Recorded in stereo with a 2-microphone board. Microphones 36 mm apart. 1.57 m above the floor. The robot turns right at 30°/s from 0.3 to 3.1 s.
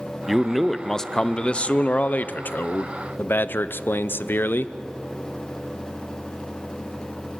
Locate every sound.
0.3 s a man speaking: 5° right, 0.6 m; by 4.7 s 75° left, 0.6 m